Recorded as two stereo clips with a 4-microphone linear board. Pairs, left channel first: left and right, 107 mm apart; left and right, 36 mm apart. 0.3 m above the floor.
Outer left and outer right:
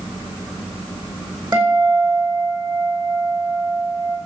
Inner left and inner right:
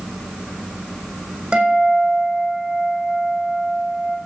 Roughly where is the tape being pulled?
I don't hear tape being pulled.